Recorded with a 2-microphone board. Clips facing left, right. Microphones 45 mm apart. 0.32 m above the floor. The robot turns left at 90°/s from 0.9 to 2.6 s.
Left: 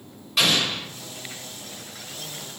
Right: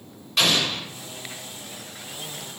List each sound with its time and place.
0.4 s an explosion: 5° left (ahead or behind), 0.9 m